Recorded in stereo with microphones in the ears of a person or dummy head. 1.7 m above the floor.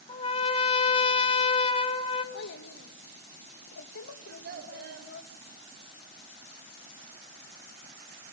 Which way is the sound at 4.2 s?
60° right (ahead or behind).